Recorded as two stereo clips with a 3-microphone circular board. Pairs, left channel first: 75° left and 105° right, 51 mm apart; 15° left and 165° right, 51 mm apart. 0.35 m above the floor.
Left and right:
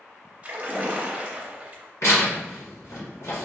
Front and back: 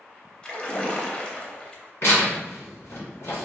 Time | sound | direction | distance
0.4 | a splash | 50° right | 0.6 m
2.0 | tearing paper | 50° left | 1.8 m